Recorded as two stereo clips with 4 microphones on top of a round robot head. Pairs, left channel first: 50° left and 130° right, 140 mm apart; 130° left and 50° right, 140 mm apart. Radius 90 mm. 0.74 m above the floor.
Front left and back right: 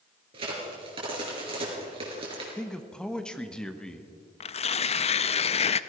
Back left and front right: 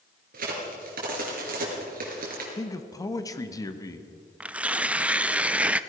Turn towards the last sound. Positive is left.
turn(degrees=30)